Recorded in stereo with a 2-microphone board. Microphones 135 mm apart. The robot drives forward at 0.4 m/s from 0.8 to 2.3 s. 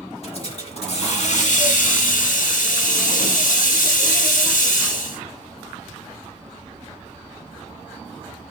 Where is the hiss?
50° left (ahead or behind), 0.8 m; by 5.2 s 80° left, 0.6 m.